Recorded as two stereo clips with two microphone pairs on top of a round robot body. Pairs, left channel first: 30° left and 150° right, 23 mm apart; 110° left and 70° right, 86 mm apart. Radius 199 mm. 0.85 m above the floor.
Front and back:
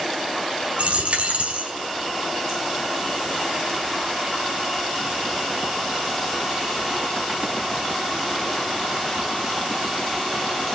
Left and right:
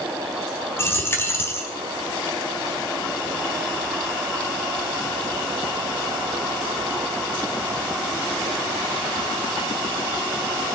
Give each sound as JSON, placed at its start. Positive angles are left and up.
{"t": 0.8, "sound": "a dropped coin", "azimuth_deg": 170, "distance_m": 1.5}